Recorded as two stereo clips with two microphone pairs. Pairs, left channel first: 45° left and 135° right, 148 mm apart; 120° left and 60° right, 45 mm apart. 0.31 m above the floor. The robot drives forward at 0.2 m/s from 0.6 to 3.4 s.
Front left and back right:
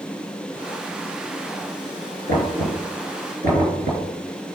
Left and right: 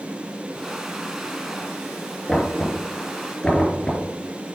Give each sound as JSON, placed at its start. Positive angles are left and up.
{"t": 2.3, "sound": "knocking", "azimuth_deg": -155, "distance_m": 3.5}